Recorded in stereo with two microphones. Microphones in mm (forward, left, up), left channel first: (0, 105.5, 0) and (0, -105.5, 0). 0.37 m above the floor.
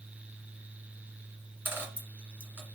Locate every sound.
1.6 s a dropped coin: 10° right (ahead or behind), 1.6 m